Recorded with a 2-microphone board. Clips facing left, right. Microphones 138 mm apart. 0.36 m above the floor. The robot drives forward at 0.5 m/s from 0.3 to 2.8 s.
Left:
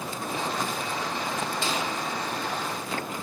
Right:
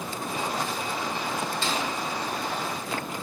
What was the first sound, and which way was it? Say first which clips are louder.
A snare drum: even; 15° left (ahead or behind).